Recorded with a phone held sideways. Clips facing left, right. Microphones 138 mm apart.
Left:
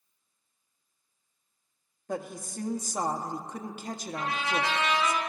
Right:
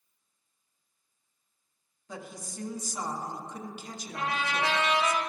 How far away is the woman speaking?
About 0.9 m.